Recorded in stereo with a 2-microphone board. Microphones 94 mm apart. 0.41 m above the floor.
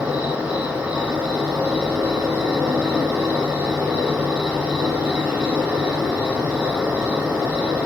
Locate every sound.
0.0 s an insect: 10° right (ahead or behind), 2.5 m